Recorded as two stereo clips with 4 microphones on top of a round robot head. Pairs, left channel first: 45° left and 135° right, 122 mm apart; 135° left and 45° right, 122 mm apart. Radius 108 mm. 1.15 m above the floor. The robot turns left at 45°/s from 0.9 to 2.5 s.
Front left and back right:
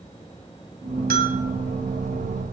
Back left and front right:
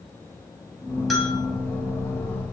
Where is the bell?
135° right, 2.5 m; by 1.4 s 150° right, 2.5 m.